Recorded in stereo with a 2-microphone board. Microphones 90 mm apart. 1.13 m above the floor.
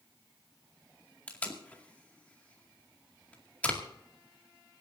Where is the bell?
No bell in this recording.